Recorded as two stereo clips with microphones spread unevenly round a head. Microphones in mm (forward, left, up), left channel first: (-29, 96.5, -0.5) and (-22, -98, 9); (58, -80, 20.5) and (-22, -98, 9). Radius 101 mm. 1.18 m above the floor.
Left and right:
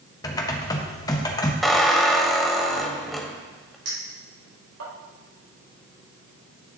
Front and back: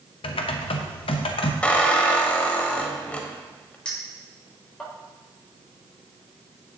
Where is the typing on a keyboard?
20° left, 0.8 m.